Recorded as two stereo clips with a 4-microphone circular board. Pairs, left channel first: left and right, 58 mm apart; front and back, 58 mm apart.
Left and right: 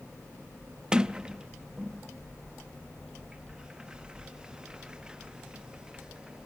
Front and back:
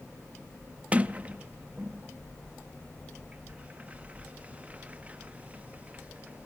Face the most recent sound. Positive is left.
turn(degrees=-145)